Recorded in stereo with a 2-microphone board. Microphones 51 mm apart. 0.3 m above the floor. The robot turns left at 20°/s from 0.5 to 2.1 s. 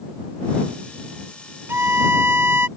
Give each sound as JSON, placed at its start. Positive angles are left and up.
{"t": 1.7, "sound": "a violin", "side_deg": -50}